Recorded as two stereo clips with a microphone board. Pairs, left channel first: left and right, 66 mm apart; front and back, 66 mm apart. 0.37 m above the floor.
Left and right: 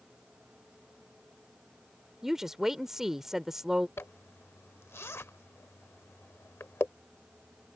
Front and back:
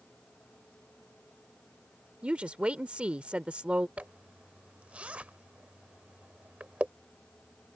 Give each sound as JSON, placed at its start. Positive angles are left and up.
{"t": 2.2, "sound": "a woman speaking", "azimuth_deg": -155}
{"t": 4.0, "sound": "a zipper", "azimuth_deg": 120}